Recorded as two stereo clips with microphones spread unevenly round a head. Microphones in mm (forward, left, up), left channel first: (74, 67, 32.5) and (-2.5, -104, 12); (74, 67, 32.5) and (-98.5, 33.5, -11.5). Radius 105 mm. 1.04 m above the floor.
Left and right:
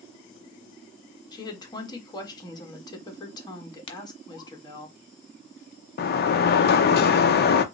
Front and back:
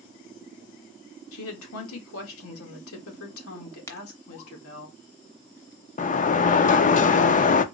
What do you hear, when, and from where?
1.3 s a woman speaking: 5° right, 1.8 m
3.9 s a crack: 45° left, 1.0 m
6.0 s a sliding door: 55° left, 0.7 m